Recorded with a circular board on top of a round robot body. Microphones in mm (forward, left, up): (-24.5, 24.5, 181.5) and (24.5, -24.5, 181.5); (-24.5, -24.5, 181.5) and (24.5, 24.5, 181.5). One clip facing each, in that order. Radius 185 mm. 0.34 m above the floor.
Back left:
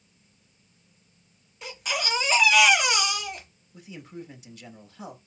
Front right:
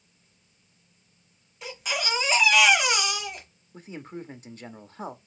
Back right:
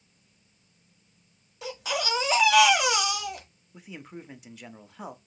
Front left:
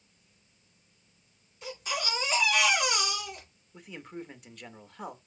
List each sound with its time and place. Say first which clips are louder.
1.6 s a baby crying: even, back right 4 dB; 135° right, 1.2 m
3.7 s a man speaking: front right 2 dB, front left 1 dB; 50° right, 1.0 m